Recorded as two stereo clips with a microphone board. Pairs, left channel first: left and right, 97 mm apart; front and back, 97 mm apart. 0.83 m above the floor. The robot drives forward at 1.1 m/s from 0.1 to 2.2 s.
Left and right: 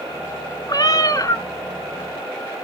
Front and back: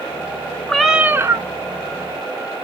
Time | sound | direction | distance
0.7 | a cat meowing | 80° left | 0.9 m